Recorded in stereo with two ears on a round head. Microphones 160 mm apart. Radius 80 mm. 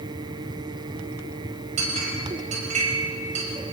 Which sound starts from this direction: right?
A clink, at 1.8 s.